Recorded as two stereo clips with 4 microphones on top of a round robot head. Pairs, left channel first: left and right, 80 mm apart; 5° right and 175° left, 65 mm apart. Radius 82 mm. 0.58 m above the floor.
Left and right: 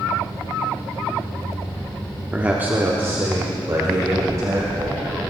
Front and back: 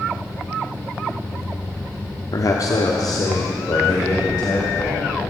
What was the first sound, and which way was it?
A man speaking, 15° right.